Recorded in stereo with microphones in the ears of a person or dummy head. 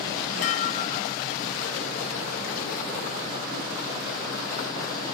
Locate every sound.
0.4 s dishes clattering: 45° left (ahead or behind)